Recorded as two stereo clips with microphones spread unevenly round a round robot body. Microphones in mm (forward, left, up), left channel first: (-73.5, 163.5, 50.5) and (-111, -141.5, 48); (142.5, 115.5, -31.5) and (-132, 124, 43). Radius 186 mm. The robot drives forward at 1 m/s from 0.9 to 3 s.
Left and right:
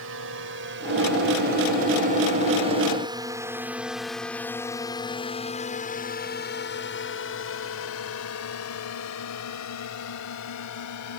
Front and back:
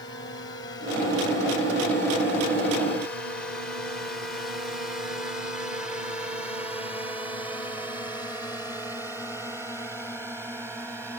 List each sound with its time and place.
0.0 s a drone: 60° right; by 11.2 s 90° left